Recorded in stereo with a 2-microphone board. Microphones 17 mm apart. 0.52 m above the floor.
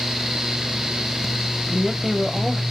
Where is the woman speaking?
15° right (ahead or behind), 0.9 m.